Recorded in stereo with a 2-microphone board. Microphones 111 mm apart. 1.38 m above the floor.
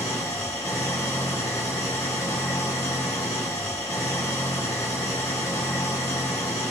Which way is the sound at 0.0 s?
30° left (ahead or behind).